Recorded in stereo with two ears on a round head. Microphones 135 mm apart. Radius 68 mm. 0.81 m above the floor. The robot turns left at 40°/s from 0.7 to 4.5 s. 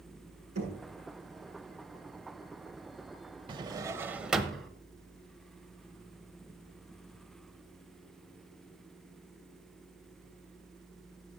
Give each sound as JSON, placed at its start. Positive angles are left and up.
{"t": 0.6, "sound": "knocking", "side_deg": -50, "distance_m": 7.5}
{"t": 3.5, "sound": "a drawer", "azimuth_deg": -140, "distance_m": 0.9}